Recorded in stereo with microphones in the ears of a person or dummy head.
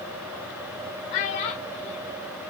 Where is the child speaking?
40° left (ahead or behind), 0.6 m.